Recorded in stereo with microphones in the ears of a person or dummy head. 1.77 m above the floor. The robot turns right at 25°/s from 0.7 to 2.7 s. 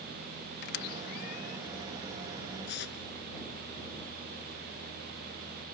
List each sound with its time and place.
0.6 s a squeak: 60° left (ahead or behind); by 1.6 s 45° left (ahead or behind)
2.7 s tearing paper: 70° left (ahead or behind)